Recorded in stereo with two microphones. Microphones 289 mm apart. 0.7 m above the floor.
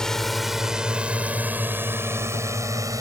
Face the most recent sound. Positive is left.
turn(degrees=-10)  # may be behind; listen again after turning